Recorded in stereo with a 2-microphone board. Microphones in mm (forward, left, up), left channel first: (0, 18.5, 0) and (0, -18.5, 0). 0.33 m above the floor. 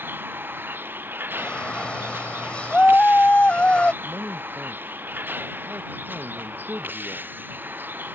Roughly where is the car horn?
I don't hear a car horn.